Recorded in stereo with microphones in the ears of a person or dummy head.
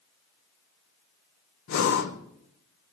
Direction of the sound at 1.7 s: 50° left (ahead or behind).